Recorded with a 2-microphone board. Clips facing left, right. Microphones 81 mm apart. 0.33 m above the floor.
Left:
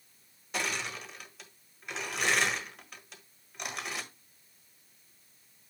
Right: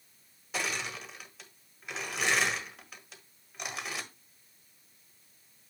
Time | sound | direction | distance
0.5 | crushing | centre (ahead or behind) | 1.3 m